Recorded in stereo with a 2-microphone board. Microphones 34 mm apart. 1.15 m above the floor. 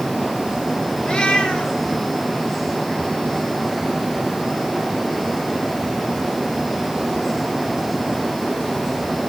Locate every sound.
1.0 s a cat meowing: 20° left (ahead or behind), 8 m